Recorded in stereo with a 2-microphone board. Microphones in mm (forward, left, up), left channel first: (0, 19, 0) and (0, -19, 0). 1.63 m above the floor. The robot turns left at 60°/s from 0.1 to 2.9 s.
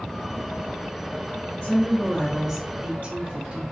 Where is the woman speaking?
35° left, 0.6 m; by 3.6 s 40° right, 0.6 m.